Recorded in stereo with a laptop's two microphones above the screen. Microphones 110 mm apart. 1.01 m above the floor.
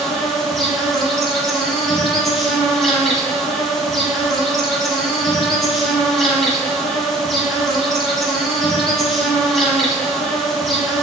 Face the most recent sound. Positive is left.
turn(degrees=5)  # may be behind; listen again after turning